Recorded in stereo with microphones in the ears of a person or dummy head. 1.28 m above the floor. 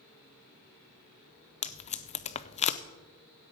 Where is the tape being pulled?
40° left (ahead or behind), 0.6 m.